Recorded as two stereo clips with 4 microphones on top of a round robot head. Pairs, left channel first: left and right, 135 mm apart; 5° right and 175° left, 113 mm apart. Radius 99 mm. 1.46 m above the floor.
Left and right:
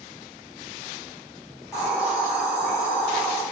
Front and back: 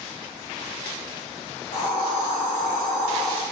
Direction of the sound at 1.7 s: Straight ahead.